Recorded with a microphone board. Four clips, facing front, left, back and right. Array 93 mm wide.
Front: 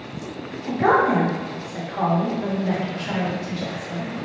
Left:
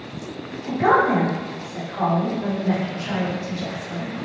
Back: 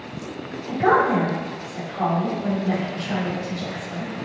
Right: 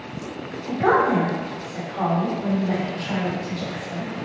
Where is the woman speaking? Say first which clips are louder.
Left 1 dB, even; 15° left, 1.6 m.